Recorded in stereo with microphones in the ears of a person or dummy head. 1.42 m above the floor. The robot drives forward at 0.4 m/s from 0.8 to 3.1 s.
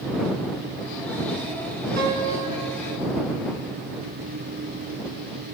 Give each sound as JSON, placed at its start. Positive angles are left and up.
{"t": 2.0, "sound": "a piano", "side_deg": -55, "distance_m": 5.0}